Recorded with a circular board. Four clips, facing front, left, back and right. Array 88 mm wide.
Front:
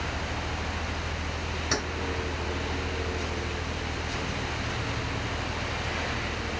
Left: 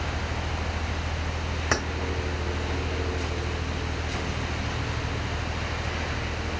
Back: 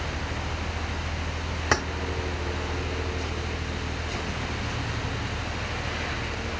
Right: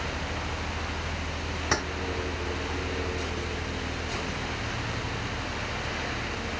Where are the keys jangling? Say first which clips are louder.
Left 1 dB, back 6 dB; 160° left, 1.0 m.